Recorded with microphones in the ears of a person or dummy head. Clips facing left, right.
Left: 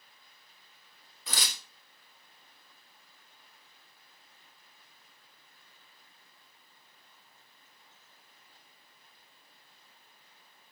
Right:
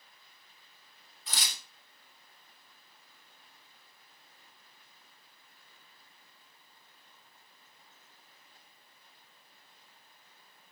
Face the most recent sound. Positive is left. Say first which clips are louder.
# left 3 dB
turn(degrees=60)  # may be behind; listen again after turning